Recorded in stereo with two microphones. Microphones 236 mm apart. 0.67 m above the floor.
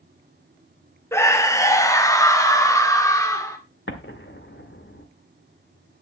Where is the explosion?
55° left (ahead or behind), 1.6 m.